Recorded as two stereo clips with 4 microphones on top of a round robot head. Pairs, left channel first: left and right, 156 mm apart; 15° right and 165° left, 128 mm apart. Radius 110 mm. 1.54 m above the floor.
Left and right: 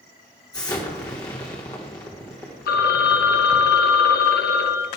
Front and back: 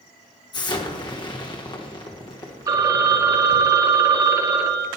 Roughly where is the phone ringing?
Left.